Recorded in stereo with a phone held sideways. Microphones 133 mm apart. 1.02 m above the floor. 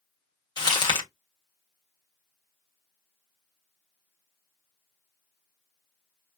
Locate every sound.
0.6 s crumpling: 35° left (ahead or behind), 1.7 m